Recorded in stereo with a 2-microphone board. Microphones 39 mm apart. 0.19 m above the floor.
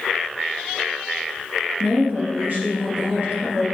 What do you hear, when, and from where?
1.8 s a woman speaking: 60° right (ahead or behind), 2.5 m